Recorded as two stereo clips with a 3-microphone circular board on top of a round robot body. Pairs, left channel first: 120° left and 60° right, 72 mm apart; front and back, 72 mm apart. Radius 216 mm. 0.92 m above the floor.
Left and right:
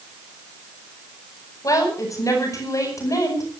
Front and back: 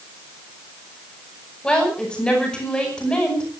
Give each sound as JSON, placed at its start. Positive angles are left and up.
{"t": 1.6, "sound": "a woman speaking", "azimuth_deg": 80, "distance_m": 9.5}